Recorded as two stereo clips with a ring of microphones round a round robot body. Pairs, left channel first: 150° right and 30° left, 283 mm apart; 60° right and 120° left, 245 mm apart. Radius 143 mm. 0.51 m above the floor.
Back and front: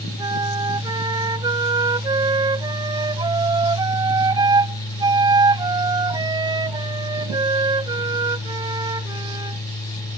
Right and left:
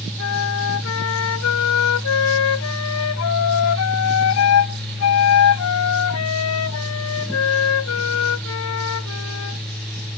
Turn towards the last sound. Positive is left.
turn(degrees=-45)